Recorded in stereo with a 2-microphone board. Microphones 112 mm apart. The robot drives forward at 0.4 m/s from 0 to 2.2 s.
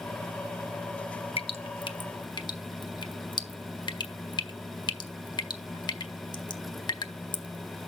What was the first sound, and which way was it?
Dripping, 60° left (ahead or behind).